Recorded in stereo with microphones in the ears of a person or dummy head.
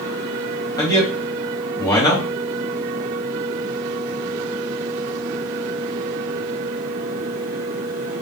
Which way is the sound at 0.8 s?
20° left (ahead or behind).